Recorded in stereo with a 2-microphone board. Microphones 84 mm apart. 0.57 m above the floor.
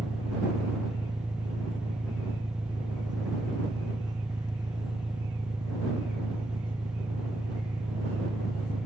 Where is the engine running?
50° right (ahead or behind).